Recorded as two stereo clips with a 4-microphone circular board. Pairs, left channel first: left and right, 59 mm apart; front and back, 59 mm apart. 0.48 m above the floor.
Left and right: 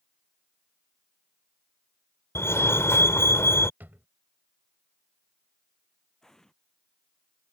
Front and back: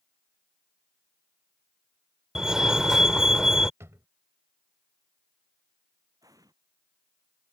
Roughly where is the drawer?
Behind right.